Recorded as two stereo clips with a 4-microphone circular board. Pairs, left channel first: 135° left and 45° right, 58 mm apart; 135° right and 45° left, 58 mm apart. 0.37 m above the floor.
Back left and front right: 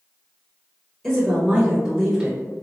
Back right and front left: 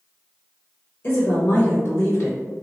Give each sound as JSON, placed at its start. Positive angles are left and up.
{"t": 1.0, "sound": "a woman speaking", "azimuth_deg": -145, "distance_m": 1.1}